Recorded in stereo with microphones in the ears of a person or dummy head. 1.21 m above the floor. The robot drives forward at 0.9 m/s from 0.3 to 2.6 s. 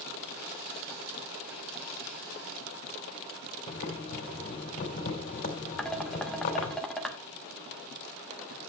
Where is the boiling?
45° left (ahead or behind), 3 m.